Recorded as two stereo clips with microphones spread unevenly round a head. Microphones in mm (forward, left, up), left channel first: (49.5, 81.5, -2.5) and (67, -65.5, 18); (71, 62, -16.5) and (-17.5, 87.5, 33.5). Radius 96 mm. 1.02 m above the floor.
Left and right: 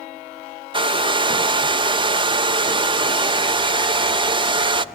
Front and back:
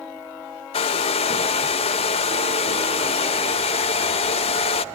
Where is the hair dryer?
25° right, 0.5 m.